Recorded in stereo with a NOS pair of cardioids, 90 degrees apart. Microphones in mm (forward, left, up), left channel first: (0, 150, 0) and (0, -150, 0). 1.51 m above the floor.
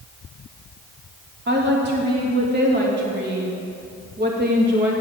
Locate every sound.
1.5 s a woman speaking: 35° right, 3 m